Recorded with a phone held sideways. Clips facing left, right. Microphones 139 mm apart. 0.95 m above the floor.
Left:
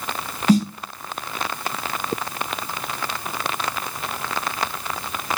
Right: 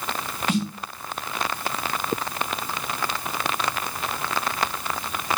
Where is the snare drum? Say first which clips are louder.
Left 8 dB; 40° left (ahead or behind), 0.5 m.